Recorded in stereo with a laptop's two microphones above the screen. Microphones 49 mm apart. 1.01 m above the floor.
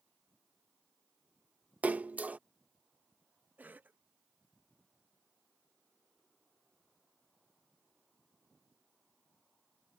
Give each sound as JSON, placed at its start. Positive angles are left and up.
{"t": 1.8, "sound": "a splash", "side_deg": -35}
{"t": 3.6, "sound": "a cough", "side_deg": -40}